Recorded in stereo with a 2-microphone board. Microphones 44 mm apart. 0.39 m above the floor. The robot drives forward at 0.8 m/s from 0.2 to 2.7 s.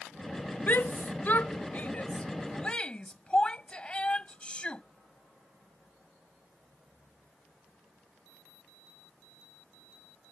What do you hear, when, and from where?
0.7 s a shout: 45° left (ahead or behind); by 4.8 s 25° left (ahead or behind)